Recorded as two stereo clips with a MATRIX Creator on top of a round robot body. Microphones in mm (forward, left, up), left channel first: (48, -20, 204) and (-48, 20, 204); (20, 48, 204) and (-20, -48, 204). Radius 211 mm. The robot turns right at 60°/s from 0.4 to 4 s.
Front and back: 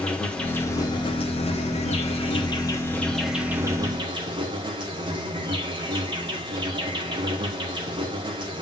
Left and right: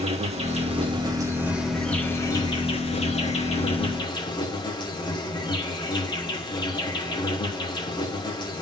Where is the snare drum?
No snare drum in this recording.